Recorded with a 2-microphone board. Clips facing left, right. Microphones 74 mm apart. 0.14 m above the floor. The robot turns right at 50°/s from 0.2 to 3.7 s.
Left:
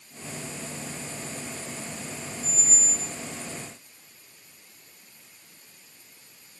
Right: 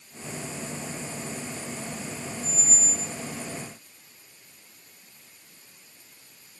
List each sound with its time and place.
2.4 s a squeak: 30° left, 3.5 m; by 3.1 s 65° left, 3.5 m